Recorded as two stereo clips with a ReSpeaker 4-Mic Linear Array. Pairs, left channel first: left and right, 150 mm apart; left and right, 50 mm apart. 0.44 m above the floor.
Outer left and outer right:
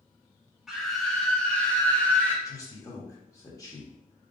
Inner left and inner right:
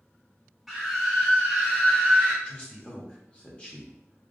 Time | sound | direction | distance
0.7 | a scream | centre (ahead or behind) | 1.4 m
2.5 | a man speaking | 25° left (ahead or behind) | 0.9 m